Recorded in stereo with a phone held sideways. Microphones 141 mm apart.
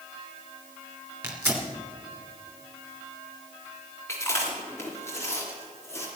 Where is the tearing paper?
15° right (ahead or behind), 3 m.